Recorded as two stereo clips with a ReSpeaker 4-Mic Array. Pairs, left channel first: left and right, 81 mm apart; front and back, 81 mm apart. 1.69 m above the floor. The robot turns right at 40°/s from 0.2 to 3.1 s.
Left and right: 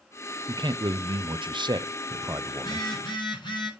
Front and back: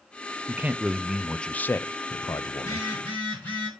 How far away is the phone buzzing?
About 6.5 m.